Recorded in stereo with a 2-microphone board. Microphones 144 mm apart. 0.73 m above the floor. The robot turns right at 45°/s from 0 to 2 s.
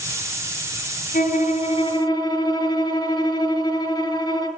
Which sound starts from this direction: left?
A violin, at 1.1 s.